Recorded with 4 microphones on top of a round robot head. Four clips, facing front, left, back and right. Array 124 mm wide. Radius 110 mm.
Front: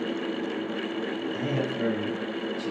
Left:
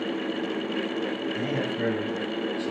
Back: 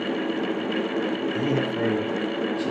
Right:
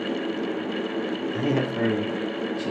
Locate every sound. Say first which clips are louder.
1.3 s a man speaking: right 4 dB, back 3 dB; 90° right, 7.5 m; by 2.7 s 110° right, 6.5 m